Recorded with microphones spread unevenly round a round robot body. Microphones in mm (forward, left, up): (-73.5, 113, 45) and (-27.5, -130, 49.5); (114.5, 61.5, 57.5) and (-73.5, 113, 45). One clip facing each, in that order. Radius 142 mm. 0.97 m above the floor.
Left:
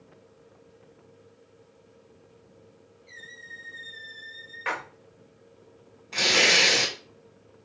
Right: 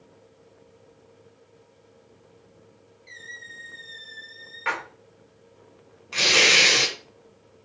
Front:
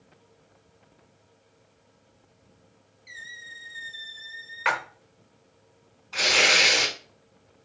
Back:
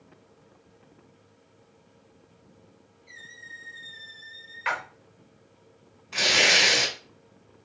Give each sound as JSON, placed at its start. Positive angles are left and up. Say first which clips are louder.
{"t": 3.1, "sound": "a squeak", "louder": "right 1 dB, back 2 dB", "azimuth_deg": -20, "distance_m": 1.0}
{"t": 4.7, "sound": "a splash", "louder": "right 1 dB, front 4 dB", "azimuth_deg": 10, "distance_m": 0.9}
{"t": 6.1, "sound": "tearing paper", "louder": "right 1 dB, even", "azimuth_deg": -155, "distance_m": 2.5}